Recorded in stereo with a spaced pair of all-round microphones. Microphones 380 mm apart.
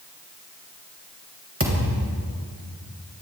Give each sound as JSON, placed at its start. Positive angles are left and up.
{"t": 1.6, "sound": "a thud", "side_deg": -35, "distance_m": 3.0}